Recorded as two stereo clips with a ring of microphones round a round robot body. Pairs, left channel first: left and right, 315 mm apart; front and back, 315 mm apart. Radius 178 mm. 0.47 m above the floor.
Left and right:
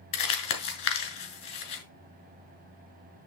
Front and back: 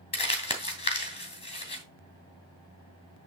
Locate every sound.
0.1 s crumpling: 70° left, 2.5 m